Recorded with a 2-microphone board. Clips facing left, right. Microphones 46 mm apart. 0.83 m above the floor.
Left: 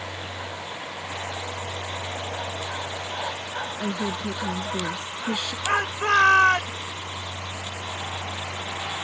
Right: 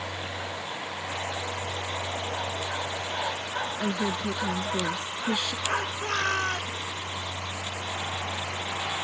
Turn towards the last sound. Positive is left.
turn(degrees=75)  # may be behind; listen again after turning